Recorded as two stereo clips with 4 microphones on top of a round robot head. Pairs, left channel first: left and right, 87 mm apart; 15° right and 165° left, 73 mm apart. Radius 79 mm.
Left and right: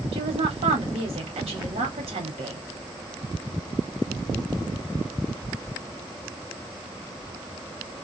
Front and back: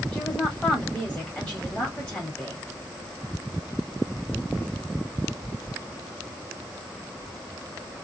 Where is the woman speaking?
90° right, 1.0 m.